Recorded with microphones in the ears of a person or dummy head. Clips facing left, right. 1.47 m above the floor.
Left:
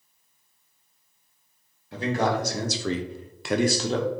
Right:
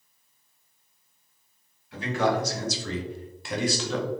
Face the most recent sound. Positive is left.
turn(degrees=25)  # may be behind; listen again after turning